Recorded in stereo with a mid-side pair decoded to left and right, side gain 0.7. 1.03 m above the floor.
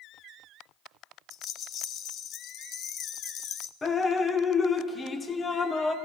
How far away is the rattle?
About 0.9 m.